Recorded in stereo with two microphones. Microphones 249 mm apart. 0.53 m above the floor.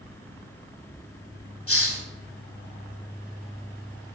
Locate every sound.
1.7 s a hiss: 60° left (ahead or behind), 1.1 m